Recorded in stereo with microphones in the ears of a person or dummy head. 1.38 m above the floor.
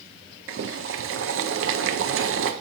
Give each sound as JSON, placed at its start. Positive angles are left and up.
{"t": 0.5, "sound": "boiling", "side_deg": -65, "distance_m": 0.6}